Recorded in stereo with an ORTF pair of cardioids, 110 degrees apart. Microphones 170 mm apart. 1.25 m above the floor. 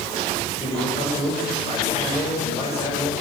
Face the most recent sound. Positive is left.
turn(degrees=40)